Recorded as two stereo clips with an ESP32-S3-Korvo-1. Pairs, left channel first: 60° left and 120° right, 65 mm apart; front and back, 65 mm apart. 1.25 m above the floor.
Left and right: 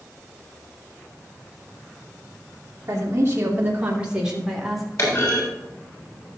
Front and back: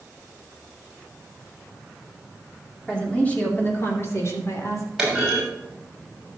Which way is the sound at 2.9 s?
75° right.